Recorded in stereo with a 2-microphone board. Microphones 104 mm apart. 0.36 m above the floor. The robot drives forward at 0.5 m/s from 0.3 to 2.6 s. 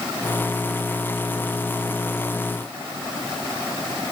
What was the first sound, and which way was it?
Only background noise.